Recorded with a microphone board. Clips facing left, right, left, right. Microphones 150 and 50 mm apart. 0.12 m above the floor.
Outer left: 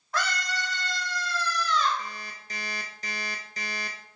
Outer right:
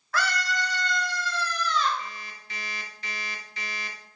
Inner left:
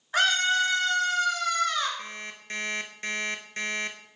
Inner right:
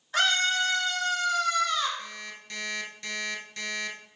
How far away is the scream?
About 1.7 m.